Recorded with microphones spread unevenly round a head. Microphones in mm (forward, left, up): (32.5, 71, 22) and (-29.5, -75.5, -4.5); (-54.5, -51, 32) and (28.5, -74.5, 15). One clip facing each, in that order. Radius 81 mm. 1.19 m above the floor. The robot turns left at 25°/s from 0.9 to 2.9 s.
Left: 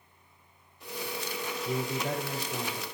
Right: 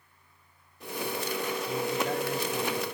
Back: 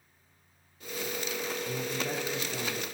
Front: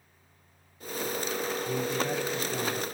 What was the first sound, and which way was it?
A man speaking, 70° left.